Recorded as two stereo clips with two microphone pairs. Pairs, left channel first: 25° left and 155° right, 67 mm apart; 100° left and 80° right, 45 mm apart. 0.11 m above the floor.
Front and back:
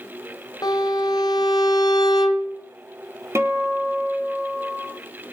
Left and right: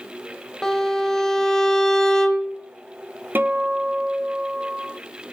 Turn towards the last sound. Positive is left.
turn(degrees=-110)